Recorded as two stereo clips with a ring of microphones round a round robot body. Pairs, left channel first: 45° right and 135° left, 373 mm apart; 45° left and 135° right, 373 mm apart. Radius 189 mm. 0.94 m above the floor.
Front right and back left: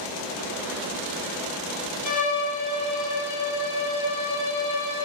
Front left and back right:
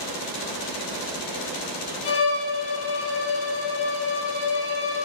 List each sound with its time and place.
2.0 s a violin: 10° right, 3 m